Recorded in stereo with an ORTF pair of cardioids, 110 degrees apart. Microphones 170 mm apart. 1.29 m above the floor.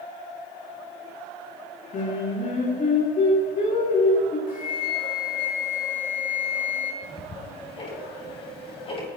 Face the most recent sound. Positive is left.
turn(degrees=35)